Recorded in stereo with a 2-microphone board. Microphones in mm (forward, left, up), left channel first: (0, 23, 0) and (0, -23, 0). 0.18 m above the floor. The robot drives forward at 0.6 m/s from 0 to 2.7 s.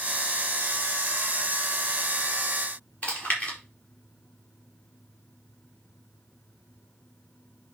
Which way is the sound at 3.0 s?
30° left (ahead or behind).